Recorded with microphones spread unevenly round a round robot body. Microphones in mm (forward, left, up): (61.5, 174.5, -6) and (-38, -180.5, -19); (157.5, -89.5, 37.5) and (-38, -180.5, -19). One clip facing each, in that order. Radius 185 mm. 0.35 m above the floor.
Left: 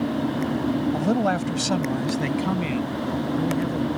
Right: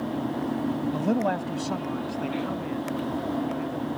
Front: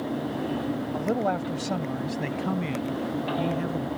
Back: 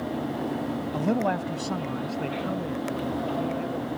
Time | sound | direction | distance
0.9 | a man speaking | 150° left | ?